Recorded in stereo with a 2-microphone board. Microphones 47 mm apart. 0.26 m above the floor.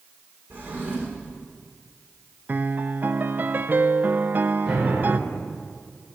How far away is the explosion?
About 5 m.